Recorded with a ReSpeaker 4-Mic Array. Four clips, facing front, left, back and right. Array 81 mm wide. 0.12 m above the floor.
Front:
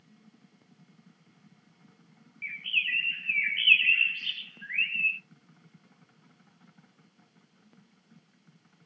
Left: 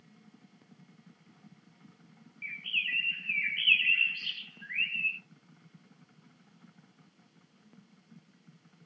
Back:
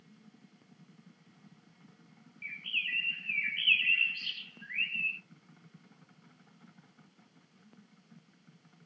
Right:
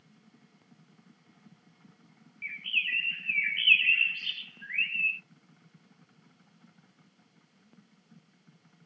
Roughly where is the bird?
Ahead.